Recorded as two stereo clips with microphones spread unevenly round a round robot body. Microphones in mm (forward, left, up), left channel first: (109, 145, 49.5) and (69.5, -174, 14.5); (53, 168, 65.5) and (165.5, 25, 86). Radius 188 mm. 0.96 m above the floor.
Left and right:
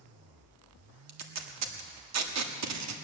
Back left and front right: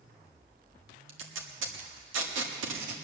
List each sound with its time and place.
1.1 s tape being pulled: 60° right, 1.5 m